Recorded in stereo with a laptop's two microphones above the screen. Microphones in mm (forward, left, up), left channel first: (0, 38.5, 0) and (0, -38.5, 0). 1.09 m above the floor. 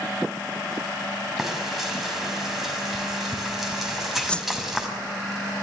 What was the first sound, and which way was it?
Frying, 5° right (ahead or behind).